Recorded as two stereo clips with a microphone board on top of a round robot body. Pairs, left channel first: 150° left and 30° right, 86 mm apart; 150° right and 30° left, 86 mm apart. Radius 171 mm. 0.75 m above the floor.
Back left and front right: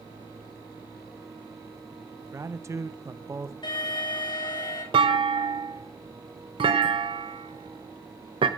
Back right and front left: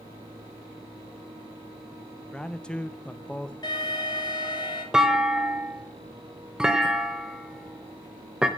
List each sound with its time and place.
2.2 s a man speaking: 75° right, 0.9 m
3.6 s an alarm: 175° left, 5.5 m
4.9 s a clunk: 55° right, 0.7 m